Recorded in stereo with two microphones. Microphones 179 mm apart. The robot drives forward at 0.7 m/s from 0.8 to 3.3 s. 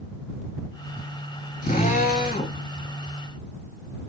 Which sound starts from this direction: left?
A drill, at 1.6 s.